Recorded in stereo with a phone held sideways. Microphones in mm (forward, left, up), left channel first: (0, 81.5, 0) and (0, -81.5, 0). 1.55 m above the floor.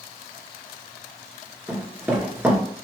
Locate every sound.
1.7 s running footsteps: 15° right (ahead or behind), 1.5 m